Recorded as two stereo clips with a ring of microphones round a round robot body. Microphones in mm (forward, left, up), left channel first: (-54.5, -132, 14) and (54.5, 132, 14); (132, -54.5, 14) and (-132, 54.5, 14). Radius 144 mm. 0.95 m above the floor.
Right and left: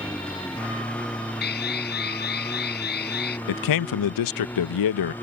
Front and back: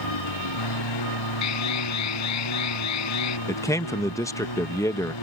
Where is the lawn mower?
25° right; by 5.2 s 30° right.